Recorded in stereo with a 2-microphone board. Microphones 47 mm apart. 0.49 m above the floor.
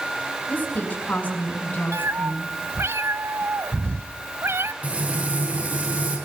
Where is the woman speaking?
40° left (ahead or behind), 6 m.